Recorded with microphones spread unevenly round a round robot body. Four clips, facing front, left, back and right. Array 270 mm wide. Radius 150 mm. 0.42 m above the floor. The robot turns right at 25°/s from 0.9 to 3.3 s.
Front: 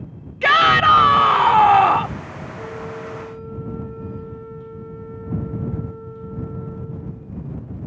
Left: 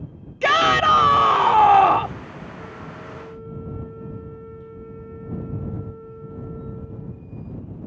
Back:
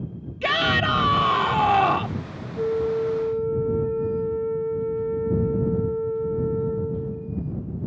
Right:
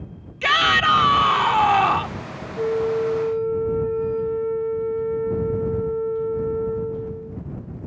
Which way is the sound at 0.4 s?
80° left.